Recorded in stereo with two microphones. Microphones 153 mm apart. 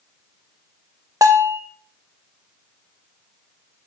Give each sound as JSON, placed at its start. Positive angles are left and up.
{"t": 1.2, "sound": "a bell", "side_deg": -20, "distance_m": 0.6}